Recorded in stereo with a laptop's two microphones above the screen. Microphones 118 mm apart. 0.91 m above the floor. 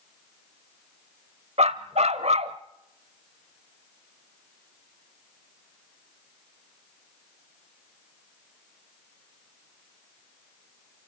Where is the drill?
No drill in this recording.